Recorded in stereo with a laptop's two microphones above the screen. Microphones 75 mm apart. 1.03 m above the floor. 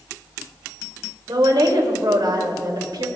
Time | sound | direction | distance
1.3 | a woman speaking | 70° right (ahead or behind) | 2.5 m